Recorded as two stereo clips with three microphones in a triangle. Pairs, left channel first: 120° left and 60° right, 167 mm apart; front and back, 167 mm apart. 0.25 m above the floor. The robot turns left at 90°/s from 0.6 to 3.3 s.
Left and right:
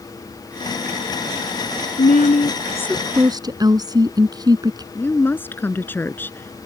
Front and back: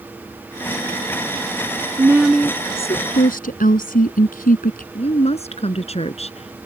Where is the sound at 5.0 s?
45° left.